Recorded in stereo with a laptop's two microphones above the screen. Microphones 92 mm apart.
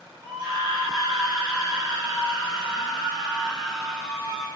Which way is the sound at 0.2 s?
55° right (ahead or behind).